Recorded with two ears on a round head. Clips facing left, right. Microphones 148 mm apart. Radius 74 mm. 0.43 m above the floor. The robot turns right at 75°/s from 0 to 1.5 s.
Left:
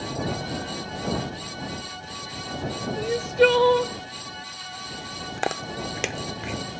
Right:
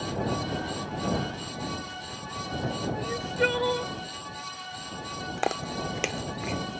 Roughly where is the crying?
Left.